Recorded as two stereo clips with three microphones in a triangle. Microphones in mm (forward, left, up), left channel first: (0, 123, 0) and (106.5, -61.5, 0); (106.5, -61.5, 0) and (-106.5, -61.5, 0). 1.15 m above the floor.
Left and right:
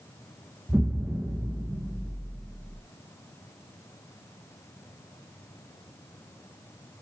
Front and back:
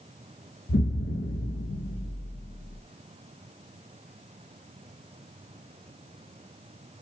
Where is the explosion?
20° left, 0.9 m.